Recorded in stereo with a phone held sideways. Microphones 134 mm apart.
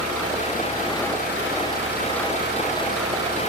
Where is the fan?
80° right.